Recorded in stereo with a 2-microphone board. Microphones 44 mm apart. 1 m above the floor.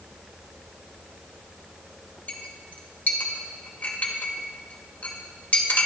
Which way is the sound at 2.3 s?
40° left (ahead or behind).